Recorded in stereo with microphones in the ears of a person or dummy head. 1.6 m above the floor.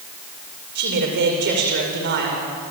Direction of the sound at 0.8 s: 60° right (ahead or behind).